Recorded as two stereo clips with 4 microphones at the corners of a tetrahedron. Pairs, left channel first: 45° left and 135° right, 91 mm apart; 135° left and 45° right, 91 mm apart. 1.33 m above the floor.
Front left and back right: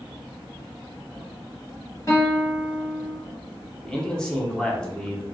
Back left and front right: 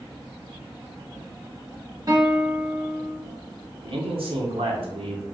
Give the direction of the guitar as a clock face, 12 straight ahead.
12 o'clock.